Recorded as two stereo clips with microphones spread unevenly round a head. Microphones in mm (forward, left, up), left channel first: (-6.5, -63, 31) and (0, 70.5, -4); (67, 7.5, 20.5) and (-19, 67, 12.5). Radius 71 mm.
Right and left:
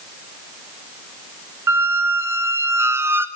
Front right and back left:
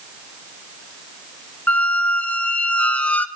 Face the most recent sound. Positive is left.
turn(degrees=0)